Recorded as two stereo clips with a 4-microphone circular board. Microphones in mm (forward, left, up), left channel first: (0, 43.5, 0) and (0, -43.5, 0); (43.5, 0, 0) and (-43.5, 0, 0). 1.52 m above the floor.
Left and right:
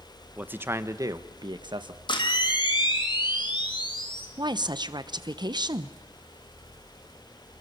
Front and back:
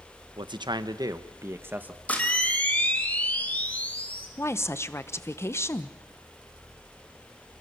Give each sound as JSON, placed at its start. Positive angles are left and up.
{"t": 0.4, "sound": "a man speaking", "azimuth_deg": -160, "distance_m": 1.3}
{"t": 2.1, "sound": "a camera shutter", "azimuth_deg": 75, "distance_m": 3.5}
{"t": 4.4, "sound": "a woman speaking", "azimuth_deg": -60, "distance_m": 1.1}